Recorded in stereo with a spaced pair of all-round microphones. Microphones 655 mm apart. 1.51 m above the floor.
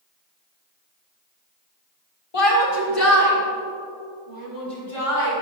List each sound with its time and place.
2.3 s a shout: 55° left (ahead or behind), 3 m